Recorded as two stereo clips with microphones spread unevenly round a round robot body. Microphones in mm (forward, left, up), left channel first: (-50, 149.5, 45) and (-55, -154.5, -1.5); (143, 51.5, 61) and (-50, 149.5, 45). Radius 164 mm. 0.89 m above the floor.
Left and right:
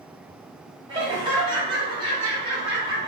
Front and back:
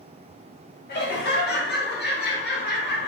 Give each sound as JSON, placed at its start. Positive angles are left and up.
{"t": 0.9, "sound": "laughter", "azimuth_deg": -35, "distance_m": 1.0}